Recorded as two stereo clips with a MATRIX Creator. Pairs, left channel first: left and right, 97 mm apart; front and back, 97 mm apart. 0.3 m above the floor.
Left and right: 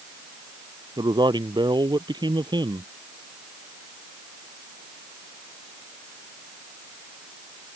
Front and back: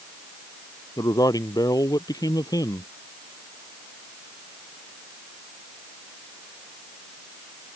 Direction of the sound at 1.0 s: 50° right.